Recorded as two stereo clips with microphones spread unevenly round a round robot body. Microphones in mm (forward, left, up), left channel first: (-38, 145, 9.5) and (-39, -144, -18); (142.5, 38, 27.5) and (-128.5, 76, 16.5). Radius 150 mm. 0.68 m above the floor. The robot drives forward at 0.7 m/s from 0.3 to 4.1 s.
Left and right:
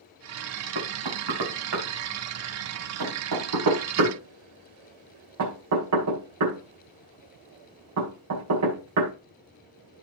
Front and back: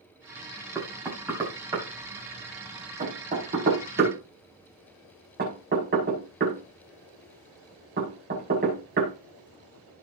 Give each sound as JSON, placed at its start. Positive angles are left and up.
{"t": 0.8, "sound": "knocking", "azimuth_deg": -100, "distance_m": 4.5}